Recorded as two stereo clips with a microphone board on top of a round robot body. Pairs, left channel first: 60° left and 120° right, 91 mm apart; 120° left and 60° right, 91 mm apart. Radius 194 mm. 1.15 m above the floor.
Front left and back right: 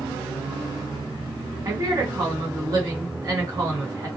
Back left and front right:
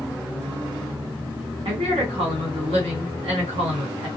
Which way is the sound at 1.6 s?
70° right.